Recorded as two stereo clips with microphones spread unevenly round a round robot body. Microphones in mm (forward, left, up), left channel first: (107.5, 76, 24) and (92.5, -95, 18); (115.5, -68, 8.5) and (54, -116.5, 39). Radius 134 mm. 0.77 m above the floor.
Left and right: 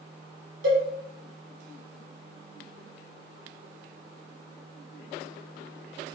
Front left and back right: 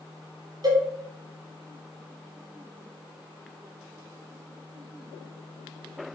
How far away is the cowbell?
About 1.4 m.